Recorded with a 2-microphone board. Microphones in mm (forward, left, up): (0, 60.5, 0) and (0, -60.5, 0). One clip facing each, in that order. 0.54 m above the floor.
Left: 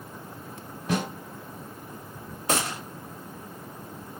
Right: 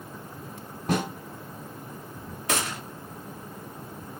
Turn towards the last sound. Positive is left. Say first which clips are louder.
# left 2 dB
turn(degrees=30)  # may be behind; listen again after turning